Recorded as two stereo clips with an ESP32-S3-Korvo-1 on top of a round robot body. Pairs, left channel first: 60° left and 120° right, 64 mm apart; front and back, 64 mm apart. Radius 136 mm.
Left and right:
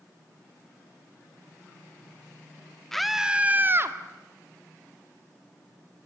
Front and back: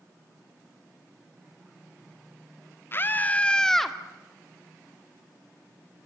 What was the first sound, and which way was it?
A scream, 20° right.